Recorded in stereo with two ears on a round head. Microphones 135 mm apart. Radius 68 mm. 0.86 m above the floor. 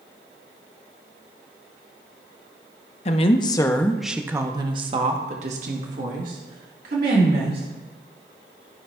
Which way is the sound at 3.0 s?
45° left (ahead or behind).